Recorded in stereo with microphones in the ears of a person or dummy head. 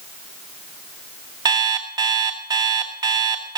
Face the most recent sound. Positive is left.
turn(degrees=-20)  # may be behind; listen again after turning